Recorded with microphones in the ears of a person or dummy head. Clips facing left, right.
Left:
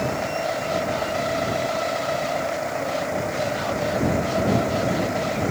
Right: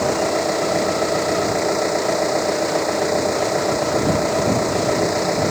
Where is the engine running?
80° right.